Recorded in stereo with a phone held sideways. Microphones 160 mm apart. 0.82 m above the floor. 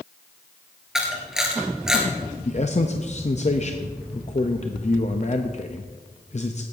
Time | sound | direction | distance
0.9 | a camera shutter | 5° right (ahead or behind) | 2.5 m
2.5 | a man speaking | 45° left (ahead or behind) | 0.6 m